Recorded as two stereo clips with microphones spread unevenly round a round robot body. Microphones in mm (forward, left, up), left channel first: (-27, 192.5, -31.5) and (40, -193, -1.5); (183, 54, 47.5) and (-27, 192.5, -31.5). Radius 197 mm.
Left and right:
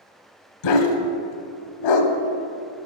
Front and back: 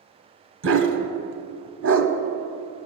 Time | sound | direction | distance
0.6 | a dog barking | 120° left | 1.0 m